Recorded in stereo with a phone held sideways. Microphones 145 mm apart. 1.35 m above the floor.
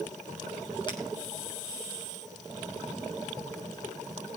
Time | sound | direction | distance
0.9 | breaking glass | 30° left (ahead or behind) | 6 m